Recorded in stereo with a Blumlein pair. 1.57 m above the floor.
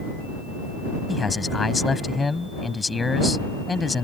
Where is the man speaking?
10° left.